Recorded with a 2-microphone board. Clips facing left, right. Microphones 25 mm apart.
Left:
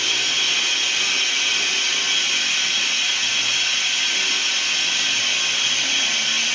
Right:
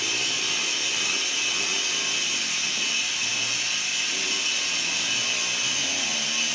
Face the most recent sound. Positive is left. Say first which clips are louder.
# left 6 dB
turn(degrees=60)  # may be behind; listen again after turning